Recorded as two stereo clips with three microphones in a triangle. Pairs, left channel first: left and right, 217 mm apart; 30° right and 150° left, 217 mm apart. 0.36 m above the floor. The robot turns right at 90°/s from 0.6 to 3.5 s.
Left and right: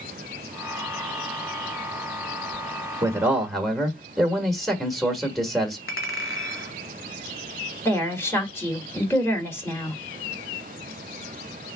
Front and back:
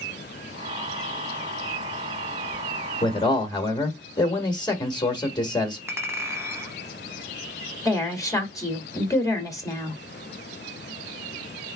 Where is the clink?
75° left, 1.4 m.